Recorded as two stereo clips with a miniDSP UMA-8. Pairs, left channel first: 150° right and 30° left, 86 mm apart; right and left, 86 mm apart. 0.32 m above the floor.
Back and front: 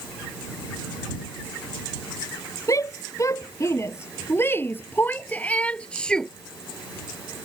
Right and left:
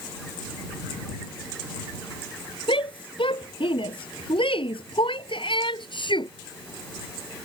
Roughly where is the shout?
Right.